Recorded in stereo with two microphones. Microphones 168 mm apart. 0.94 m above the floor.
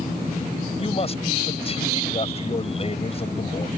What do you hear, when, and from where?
0.8 s a man speaking: 35° left (ahead or behind)